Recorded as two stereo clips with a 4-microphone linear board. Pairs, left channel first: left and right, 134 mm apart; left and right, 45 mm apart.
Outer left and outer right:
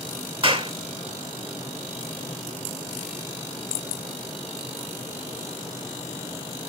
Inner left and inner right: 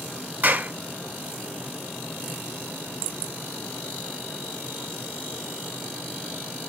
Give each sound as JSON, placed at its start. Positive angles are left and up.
{"t": 0.4, "sound": "a clap", "side_deg": -40, "distance_m": 1.8}